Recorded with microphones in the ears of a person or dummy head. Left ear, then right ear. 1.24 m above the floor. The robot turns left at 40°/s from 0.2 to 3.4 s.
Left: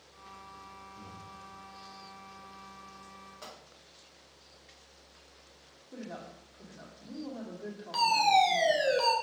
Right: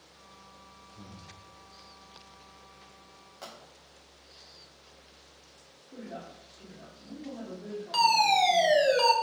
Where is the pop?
20° right (ahead or behind), 2.5 m.